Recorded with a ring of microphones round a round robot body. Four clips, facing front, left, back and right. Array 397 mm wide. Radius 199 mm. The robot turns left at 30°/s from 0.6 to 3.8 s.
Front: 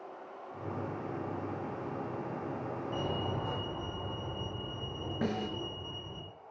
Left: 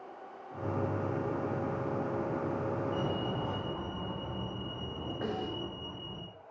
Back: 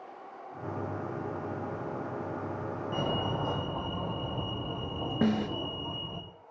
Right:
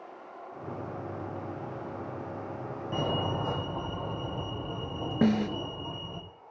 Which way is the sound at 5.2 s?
115° right.